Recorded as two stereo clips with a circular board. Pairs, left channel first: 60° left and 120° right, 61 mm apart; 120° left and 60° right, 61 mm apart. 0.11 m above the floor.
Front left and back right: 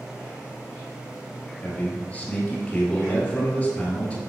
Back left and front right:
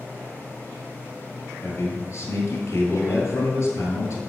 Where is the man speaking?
120° left, 1.9 m.